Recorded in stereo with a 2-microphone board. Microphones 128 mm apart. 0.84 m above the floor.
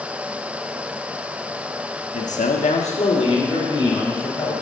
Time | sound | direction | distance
2.1 | a man speaking | 60° left (ahead or behind) | 1.0 m